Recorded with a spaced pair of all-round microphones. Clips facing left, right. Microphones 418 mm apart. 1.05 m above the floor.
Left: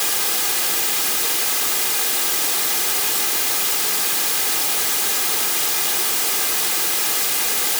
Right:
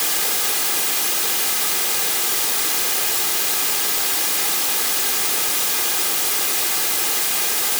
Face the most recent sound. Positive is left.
No sound to turn to.